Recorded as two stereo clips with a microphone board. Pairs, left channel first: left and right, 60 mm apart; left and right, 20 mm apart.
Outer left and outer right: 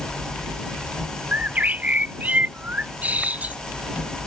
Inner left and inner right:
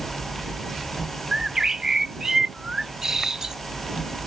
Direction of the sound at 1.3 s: 25° right (ahead or behind).